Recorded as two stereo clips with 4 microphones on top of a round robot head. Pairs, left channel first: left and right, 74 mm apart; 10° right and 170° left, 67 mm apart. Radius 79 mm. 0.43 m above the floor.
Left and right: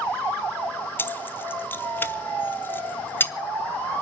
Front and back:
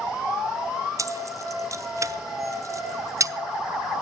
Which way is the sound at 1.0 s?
145° left.